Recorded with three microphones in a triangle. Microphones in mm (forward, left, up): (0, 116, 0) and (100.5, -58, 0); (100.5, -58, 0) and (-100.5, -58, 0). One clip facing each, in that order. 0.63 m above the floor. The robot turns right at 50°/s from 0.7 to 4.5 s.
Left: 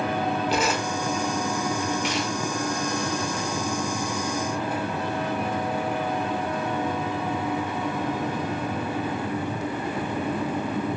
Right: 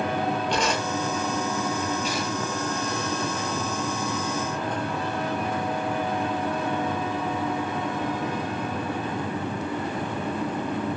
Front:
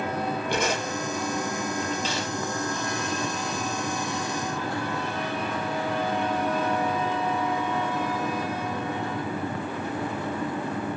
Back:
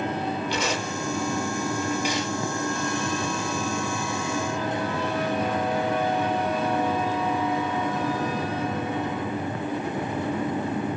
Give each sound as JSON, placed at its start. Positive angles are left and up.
{"t": 0.5, "sound": "tearing paper", "azimuth_deg": 35, "distance_m": 7.0}